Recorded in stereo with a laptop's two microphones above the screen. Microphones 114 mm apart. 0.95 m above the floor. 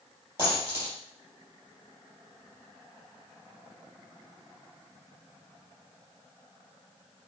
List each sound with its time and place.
0.4 s a dropped coin: 20° right (ahead or behind), 3.5 m